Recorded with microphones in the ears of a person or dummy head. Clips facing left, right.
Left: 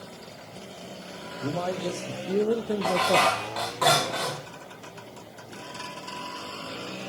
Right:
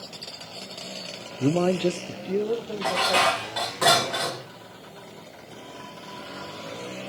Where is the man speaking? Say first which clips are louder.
Right 8 dB; 45° right (ahead or behind), 0.7 m; by 3.4 s 40° left (ahead or behind), 1.2 m.